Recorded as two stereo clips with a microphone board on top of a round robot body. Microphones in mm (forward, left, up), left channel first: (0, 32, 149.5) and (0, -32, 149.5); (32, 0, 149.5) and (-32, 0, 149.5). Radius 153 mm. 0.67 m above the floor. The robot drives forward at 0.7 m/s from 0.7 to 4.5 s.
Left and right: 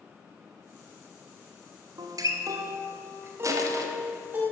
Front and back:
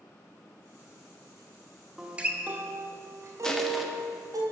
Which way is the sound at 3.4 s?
80° right.